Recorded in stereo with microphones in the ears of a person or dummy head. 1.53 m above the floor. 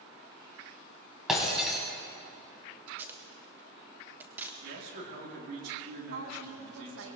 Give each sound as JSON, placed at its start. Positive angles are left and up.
{"t": 1.3, "sound": "breaking glass", "side_deg": 0, "distance_m": 3.5}
{"t": 2.9, "sound": "tape being pulled", "side_deg": -10, "distance_m": 1.4}
{"t": 4.6, "sound": "a man speaking", "side_deg": -60, "distance_m": 4.0}
{"t": 6.1, "sound": "a woman speaking", "side_deg": -85, "distance_m": 1.9}